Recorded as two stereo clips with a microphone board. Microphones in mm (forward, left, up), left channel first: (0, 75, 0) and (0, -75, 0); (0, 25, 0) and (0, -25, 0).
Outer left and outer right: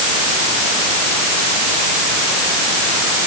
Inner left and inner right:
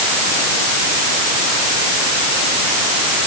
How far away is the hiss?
No hiss in this recording.